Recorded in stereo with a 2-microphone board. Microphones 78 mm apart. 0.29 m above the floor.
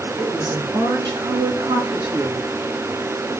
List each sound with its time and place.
0.2 s a woman speaking: 65° right (ahead or behind), 3 m; by 2.5 s 70° right (ahead or behind), 3 m